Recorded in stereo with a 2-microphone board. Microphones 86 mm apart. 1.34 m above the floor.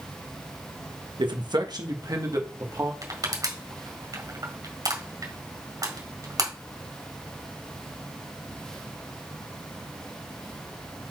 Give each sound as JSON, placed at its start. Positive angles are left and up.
{"t": 1.2, "sound": "a man speaking", "side_deg": -65, "distance_m": 1.2}
{"t": 3.0, "sound": "crushing", "side_deg": -45, "distance_m": 1.7}